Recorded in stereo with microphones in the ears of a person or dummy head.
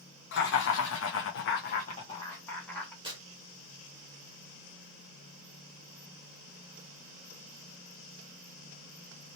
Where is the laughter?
60° left (ahead or behind), 1.0 m; by 2.9 s 5° left (ahead or behind), 1.0 m.